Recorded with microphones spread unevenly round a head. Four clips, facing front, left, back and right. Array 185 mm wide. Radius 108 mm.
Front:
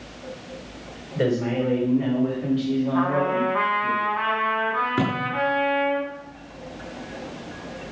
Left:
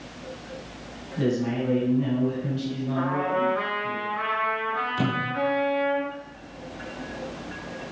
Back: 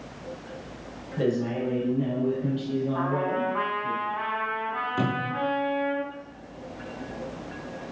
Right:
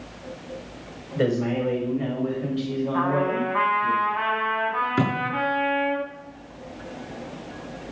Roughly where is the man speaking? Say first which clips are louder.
Right 2 dB, front 3 dB; ahead right.